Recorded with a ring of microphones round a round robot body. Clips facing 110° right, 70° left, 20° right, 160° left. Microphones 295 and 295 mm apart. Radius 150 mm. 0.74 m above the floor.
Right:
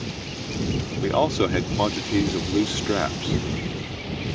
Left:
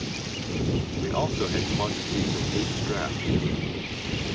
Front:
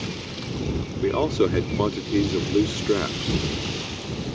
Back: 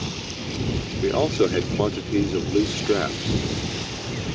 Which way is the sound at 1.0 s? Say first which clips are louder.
Right 9 dB, back 1 dB; 105° right.